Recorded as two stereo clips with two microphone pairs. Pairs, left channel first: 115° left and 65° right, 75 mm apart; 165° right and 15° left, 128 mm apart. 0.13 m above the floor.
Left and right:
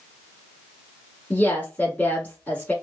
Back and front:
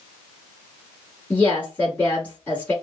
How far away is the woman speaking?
About 1.3 m.